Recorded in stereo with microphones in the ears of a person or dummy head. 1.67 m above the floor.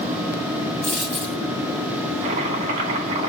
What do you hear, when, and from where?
0.8 s a dropped coin: 5° left (ahead or behind), 1.1 m
2.2 s chopping: 35° right (ahead or behind), 2 m